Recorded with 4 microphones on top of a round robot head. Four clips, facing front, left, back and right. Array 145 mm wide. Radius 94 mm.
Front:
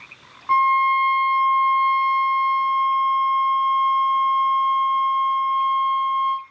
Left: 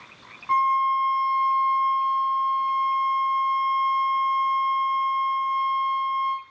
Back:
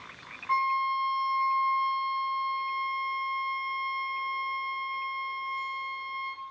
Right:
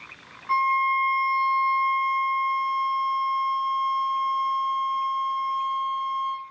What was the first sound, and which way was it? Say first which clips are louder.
A violin: left 2 dB, front 10 dB; 20° left.